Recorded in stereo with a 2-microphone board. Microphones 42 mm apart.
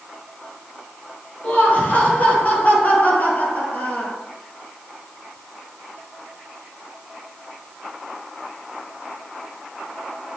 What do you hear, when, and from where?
1.4 s laughter: 35° left (ahead or behind), 5.5 m; by 4.2 s 40° left (ahead or behind), 4 m